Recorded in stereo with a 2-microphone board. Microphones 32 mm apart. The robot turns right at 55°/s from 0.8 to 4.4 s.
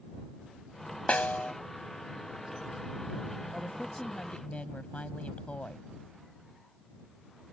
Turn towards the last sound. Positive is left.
turn(degrees=55)